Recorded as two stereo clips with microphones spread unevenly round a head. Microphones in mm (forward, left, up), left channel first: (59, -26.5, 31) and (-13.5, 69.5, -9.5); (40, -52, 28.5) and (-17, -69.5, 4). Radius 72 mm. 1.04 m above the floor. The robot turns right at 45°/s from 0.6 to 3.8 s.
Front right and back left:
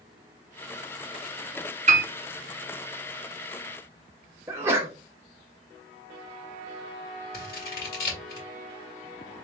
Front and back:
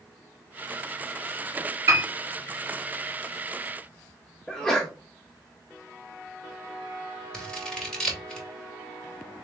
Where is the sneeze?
130° left, 0.6 m.